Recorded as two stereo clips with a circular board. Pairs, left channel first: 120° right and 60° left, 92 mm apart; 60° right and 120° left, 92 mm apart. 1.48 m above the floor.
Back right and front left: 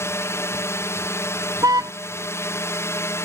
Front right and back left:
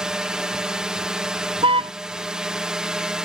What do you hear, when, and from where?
0.0 s a drone: 160° right
1.6 s a car horn: 110° left